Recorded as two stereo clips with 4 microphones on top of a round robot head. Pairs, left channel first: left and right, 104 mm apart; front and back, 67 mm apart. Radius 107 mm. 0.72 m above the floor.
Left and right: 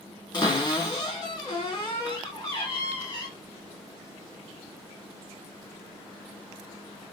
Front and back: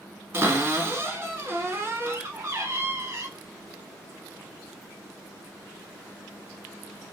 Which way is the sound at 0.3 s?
135° left.